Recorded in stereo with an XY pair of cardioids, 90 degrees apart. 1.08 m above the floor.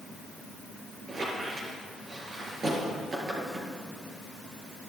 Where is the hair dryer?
I don't hear a hair dryer.